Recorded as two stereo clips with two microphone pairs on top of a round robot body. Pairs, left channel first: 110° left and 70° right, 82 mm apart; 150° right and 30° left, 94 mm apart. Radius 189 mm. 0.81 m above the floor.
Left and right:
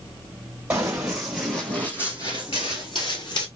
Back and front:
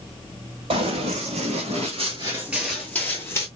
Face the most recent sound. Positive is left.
turn(degrees=150)